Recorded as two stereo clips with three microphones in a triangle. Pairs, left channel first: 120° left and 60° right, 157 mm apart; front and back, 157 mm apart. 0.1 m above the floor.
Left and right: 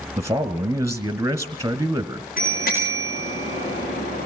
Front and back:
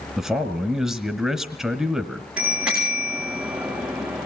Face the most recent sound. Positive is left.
turn(degrees=100)